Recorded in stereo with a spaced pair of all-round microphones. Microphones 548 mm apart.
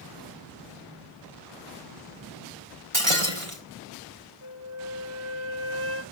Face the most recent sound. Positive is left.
turn(degrees=50)  # may be behind; listen again after turning